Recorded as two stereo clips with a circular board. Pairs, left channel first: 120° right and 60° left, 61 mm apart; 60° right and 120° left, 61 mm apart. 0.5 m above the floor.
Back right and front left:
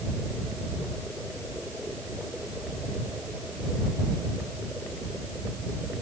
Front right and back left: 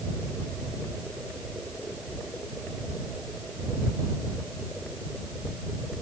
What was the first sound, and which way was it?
Only background noise.